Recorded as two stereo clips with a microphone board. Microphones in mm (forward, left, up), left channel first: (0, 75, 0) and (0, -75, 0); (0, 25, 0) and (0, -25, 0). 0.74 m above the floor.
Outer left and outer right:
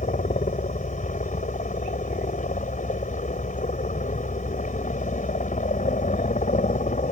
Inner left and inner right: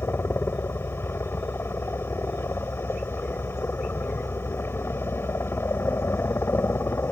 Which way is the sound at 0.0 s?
55° left (ahead or behind).